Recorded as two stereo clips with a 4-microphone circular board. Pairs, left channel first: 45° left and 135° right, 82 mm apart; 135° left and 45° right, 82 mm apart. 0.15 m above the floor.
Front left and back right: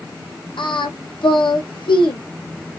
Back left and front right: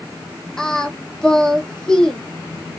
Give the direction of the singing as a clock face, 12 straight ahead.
10 o'clock.